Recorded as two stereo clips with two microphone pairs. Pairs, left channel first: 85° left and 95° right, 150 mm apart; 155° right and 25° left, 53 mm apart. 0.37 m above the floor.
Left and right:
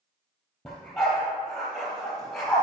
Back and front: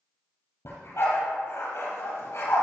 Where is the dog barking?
170° left, 3 m.